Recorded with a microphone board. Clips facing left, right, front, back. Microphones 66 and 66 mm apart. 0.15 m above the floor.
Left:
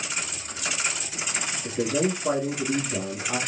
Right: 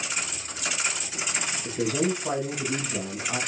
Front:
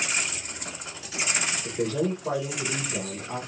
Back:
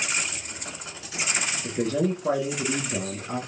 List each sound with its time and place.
1.6 s a man speaking: 165° left, 1.9 m